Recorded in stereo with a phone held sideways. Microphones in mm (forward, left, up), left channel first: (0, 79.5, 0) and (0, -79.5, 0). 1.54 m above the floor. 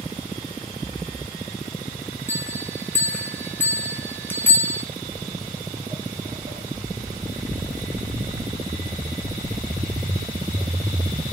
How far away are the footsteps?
About 2.5 m.